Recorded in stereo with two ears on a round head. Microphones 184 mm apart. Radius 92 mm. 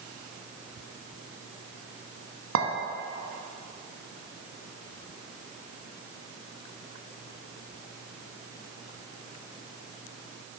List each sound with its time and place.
2.5 s a clink: 65° right (ahead or behind), 1.0 m